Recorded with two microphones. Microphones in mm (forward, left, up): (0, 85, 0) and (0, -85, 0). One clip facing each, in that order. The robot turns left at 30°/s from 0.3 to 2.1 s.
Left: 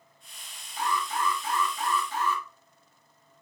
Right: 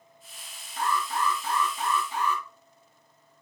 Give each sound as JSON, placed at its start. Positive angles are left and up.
{"t": 0.8, "sound": "an alarm", "azimuth_deg": -125, "distance_m": 1.8}